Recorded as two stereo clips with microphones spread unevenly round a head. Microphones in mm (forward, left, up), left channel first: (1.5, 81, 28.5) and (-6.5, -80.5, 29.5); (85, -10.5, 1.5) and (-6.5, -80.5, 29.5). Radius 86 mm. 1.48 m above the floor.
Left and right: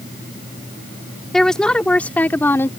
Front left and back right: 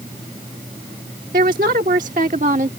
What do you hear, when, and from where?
1.3 s a woman speaking: 175° left; by 2.7 s 165° left